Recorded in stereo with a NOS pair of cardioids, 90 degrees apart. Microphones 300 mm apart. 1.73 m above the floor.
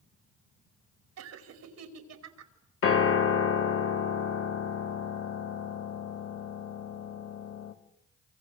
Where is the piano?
55° left, 2.5 m.